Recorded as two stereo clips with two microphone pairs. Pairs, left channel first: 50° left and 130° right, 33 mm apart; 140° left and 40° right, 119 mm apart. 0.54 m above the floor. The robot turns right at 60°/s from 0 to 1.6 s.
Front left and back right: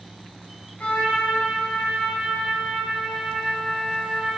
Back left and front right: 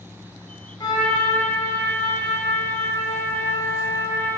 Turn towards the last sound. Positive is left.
turn(degrees=135)